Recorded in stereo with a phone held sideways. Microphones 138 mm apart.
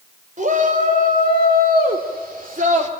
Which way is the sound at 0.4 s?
65° right (ahead or behind).